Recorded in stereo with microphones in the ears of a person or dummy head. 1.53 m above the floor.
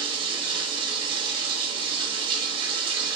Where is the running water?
30° right (ahead or behind), 0.8 m.